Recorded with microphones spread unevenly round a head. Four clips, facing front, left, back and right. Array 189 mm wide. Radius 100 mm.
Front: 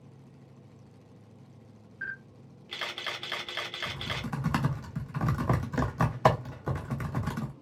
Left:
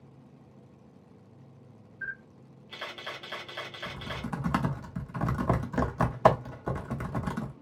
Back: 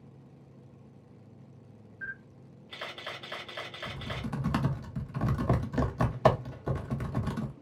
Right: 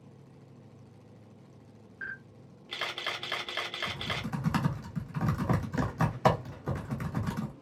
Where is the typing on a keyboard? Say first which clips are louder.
Even, back 1 dB; 55° left, 0.9 m.